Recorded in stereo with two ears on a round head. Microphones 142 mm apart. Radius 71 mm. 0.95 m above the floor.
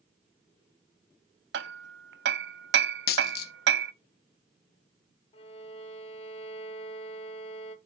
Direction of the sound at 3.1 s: 65° left (ahead or behind).